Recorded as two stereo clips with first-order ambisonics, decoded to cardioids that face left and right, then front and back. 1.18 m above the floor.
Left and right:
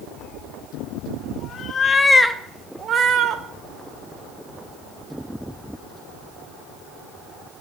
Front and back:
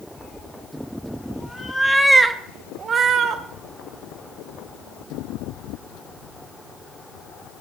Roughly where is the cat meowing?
Ahead left.